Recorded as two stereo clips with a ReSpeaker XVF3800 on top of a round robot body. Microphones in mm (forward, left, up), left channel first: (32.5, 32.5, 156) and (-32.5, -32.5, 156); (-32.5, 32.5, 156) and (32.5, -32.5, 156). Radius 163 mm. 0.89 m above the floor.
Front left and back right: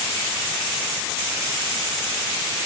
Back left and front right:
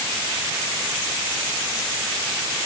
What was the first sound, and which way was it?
Only background noise.